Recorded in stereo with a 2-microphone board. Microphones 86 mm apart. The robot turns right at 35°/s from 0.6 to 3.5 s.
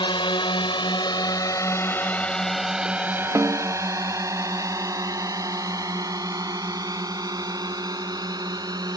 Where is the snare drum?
40° right (ahead or behind); by 3.8 s 45° right (ahead or behind).